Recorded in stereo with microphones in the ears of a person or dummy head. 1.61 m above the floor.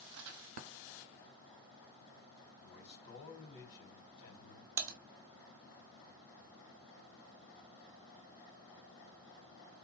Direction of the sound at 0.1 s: 70° right (ahead or behind).